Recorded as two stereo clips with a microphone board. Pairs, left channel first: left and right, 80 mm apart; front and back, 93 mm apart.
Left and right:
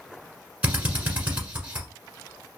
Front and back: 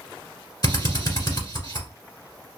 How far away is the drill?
About 1.3 m.